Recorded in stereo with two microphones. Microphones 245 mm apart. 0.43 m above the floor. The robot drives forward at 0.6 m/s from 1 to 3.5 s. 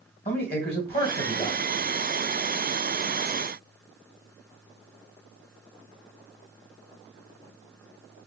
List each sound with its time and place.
0.2 s a man speaking: 40° left (ahead or behind), 2.5 m; by 1.6 s 35° left (ahead or behind), 2.5 m